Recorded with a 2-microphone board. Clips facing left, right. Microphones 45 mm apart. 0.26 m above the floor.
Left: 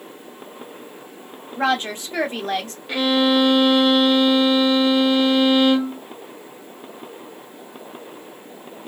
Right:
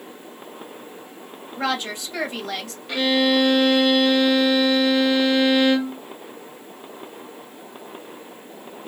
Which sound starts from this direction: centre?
A violin, at 2.9 s.